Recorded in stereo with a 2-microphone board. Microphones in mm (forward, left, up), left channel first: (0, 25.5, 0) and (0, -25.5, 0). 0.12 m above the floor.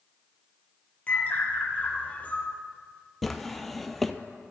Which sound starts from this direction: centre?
A drawer, at 3.2 s.